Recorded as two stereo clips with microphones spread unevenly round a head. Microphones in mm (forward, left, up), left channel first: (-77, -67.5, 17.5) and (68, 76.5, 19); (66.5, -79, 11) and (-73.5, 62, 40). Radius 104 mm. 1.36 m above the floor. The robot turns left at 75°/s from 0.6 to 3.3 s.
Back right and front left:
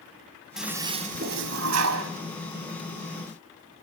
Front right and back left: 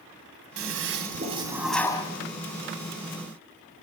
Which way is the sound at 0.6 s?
130° left.